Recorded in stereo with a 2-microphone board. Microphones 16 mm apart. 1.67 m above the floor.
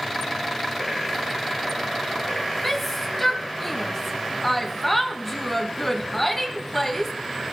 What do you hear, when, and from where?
2.6 s a shout: 5° left (ahead or behind), 2.5 m